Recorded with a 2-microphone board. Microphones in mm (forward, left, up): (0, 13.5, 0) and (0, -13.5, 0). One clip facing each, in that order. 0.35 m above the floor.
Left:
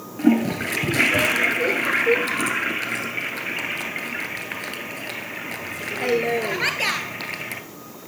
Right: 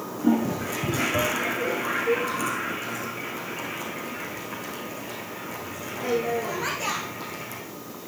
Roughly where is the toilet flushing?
Left.